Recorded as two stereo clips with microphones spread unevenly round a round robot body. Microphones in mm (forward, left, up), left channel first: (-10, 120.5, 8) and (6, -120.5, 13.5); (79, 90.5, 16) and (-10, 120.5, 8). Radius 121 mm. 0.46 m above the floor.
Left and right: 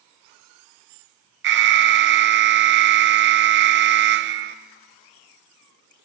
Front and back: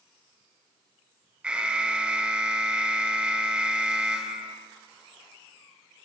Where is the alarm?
120° right, 1.3 m.